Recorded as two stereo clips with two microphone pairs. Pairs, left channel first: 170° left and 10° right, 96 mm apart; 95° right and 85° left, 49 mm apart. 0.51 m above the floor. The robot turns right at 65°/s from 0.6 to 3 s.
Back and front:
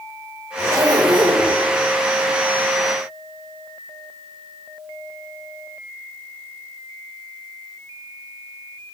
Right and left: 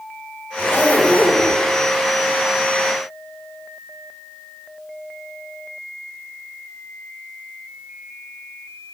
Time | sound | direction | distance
0.6 | a zipper | 65° right | 2 m